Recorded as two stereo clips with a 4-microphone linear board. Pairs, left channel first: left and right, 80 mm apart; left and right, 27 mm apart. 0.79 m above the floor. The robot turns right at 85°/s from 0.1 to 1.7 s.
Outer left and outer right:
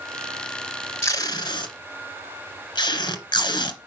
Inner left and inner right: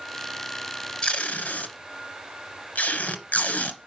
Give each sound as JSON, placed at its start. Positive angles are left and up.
{"t": 1.0, "sound": "tape being pulled", "side_deg": 35, "distance_m": 1.9}